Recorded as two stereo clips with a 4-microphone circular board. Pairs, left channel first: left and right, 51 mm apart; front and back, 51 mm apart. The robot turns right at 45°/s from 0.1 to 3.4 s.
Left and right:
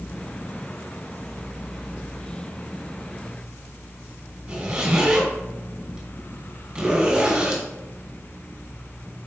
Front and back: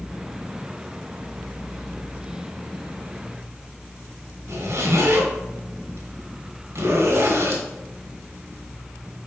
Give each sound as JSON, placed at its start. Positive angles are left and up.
{"t": 4.5, "sound": "a zipper", "azimuth_deg": -165, "distance_m": 2.5}